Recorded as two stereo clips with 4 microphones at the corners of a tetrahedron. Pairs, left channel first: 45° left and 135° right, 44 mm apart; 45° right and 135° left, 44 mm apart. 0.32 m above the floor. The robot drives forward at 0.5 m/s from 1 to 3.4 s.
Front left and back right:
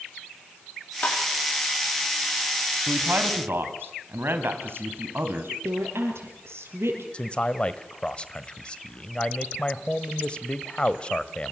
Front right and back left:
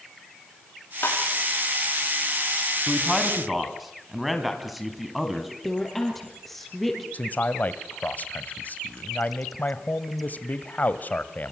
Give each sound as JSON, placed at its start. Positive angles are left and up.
{"t": 1.0, "sound": "tapping", "azimuth_deg": -10, "distance_m": 9.0}
{"t": 2.9, "sound": "a man speaking", "azimuth_deg": -130, "distance_m": 2.5}
{"t": 5.6, "sound": "a woman speaking", "azimuth_deg": -130, "distance_m": 7.0}
{"t": 7.1, "sound": "a man speaking", "azimuth_deg": -10, "distance_m": 1.3}